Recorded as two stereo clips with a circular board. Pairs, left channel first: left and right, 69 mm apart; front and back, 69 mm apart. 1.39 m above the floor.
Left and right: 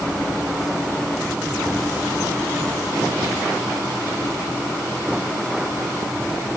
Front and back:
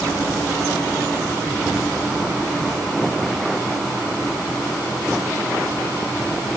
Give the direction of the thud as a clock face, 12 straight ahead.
No thud in this recording.